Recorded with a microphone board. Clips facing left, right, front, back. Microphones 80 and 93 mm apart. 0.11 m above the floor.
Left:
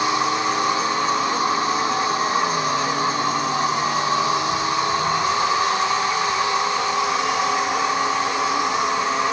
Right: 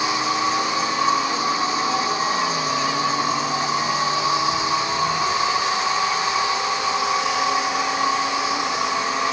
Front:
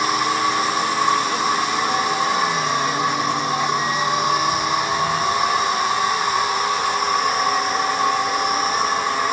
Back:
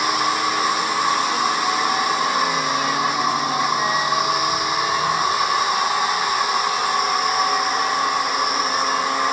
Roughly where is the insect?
Left.